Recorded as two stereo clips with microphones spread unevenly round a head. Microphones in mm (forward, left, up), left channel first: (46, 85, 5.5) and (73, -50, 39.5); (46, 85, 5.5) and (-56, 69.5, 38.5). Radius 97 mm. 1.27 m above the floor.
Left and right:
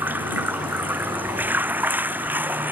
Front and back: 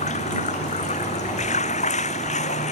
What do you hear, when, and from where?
0.0 s running water: 5° right